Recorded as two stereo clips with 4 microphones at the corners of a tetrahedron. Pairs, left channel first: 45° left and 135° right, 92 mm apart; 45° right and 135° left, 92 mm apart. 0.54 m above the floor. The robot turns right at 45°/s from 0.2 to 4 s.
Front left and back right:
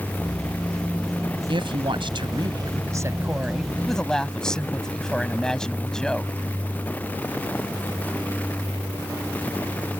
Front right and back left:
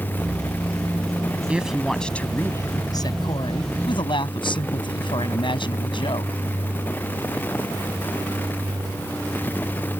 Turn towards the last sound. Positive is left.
turn(degrees=-35)